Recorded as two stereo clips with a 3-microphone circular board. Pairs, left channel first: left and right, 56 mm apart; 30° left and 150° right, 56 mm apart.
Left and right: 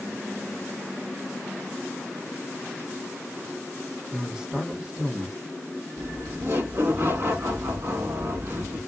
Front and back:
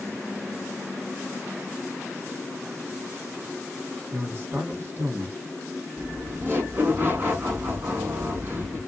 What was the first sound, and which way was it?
A man speaking, 160° right.